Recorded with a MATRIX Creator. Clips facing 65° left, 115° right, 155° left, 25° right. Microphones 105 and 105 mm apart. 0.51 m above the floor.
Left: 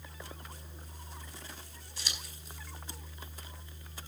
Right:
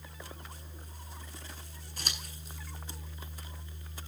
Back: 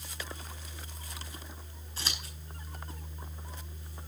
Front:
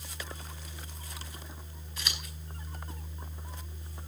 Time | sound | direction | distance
2.0 | scissors | 150° right | 5 m